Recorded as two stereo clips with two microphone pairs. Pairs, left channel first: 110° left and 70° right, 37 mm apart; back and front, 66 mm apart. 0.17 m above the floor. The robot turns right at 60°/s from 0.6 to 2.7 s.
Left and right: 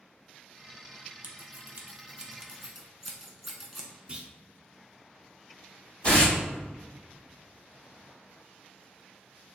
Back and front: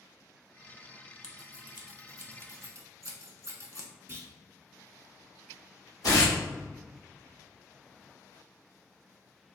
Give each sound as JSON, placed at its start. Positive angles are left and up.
{"t": 1.2, "sound": "scissors", "azimuth_deg": -70, "distance_m": 0.6}
{"t": 4.1, "sound": "a clunk", "azimuth_deg": -20, "distance_m": 0.6}
{"t": 6.0, "sound": "tearing paper", "azimuth_deg": 165, "distance_m": 2.0}